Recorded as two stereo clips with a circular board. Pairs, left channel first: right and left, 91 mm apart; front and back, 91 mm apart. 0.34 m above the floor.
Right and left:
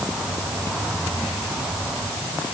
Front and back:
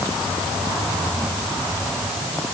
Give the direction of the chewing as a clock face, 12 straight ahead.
No chewing in this recording.